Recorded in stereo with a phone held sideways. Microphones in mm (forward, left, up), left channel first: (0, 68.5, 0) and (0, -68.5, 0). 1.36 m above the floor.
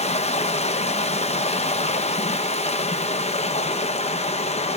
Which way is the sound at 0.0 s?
50° left (ahead or behind).